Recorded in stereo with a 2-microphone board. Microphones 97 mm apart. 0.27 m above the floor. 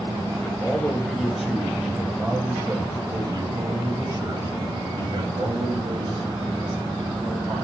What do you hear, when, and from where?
0.4 s a man speaking: 20° left (ahead or behind), 1.4 m; by 7.6 s 65° right (ahead or behind), 3.5 m